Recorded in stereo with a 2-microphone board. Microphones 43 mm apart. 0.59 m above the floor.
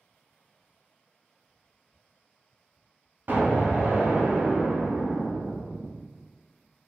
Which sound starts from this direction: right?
An explosion, at 3.3 s.